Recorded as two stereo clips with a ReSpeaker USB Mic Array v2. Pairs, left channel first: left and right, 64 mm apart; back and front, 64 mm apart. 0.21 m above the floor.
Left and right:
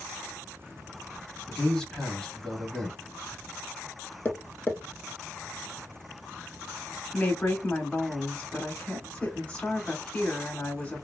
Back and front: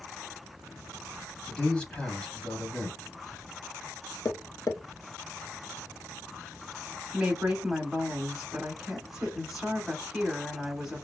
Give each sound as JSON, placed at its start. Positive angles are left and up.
{"t": 1.5, "sound": "a man speaking", "azimuth_deg": 145, "distance_m": 1.4}
{"t": 4.2, "sound": "tapping", "azimuth_deg": 145, "distance_m": 0.5}
{"t": 7.1, "sound": "a woman speaking", "azimuth_deg": 70, "distance_m": 1.0}